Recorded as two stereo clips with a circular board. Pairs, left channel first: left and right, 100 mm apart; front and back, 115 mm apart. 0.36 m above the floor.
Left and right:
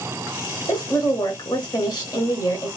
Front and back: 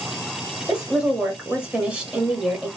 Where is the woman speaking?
105° left, 1.1 m.